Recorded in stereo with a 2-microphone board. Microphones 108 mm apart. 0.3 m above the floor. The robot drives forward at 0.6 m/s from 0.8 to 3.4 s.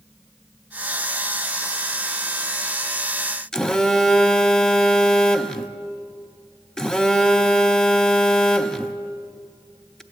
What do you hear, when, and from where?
3.5 s a phone buzzing: 5° left (ahead or behind), 0.5 m